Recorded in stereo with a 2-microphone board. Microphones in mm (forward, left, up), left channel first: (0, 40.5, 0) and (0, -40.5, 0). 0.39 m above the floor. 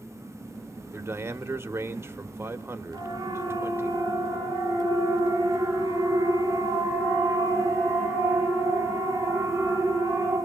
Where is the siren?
45° right (ahead or behind), 7 m; by 10.4 s 25° right (ahead or behind), 13.5 m.